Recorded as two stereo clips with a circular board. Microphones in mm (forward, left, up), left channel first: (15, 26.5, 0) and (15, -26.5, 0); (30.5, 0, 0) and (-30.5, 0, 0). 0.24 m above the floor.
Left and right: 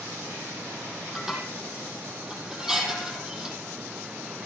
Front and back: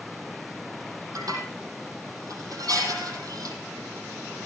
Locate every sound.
1.1 s dishes clattering: 170° right, 5.5 m